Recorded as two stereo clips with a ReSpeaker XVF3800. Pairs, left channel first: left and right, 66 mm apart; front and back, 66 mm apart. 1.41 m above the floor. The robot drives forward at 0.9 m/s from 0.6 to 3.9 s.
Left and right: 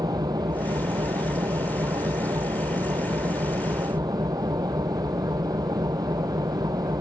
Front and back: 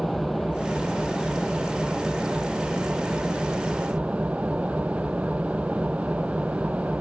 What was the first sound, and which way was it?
An engine running, 90° right.